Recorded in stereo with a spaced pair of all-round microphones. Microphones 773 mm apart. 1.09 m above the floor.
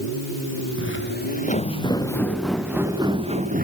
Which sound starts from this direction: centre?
Footsteps, at 0.8 s.